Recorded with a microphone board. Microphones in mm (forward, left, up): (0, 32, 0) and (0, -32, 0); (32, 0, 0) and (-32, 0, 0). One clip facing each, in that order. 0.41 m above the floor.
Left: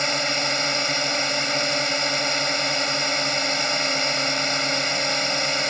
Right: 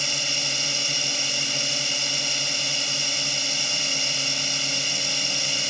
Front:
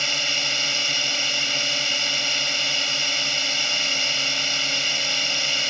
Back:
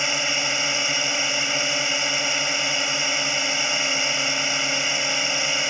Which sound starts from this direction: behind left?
A drone, at 0.0 s.